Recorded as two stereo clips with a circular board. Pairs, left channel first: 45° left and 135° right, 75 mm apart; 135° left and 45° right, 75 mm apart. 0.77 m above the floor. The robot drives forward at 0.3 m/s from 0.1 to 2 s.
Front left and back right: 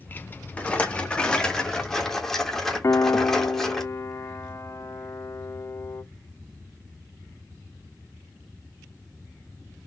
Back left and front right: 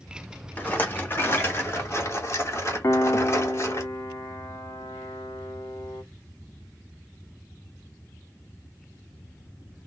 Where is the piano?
90° left, 0.6 m.